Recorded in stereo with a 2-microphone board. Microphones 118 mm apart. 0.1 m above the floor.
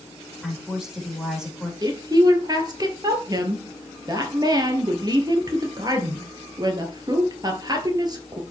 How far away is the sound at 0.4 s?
About 4.5 m.